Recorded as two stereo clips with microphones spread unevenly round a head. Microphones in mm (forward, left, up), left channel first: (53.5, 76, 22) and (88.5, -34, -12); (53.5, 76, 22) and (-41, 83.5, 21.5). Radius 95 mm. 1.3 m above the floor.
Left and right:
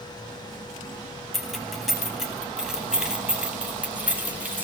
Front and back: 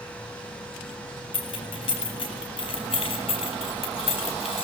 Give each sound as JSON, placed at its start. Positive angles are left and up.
{"t": 1.3, "sound": "keys jangling", "azimuth_deg": 20, "distance_m": 8.0}